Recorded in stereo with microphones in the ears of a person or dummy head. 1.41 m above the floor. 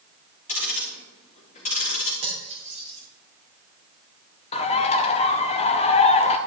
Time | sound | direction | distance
0.5 | ticking | 50° left (ahead or behind) | 3.5 m
2.2 | cutlery clinking | 35° right (ahead or behind) | 2.5 m
4.5 | a bird | 40° left (ahead or behind) | 0.6 m